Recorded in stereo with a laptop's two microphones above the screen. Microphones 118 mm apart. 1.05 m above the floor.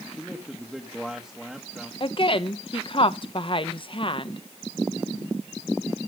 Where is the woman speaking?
45° left (ahead or behind), 0.9 m.